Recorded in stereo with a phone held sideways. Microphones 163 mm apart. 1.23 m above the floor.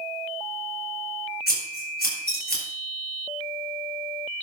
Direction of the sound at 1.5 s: 85° left.